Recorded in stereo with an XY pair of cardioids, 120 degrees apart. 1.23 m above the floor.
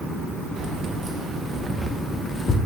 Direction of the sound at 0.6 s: 55° right.